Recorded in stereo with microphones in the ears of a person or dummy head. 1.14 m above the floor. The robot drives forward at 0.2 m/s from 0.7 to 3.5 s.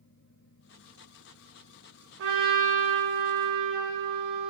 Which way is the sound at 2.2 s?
65° right (ahead or behind).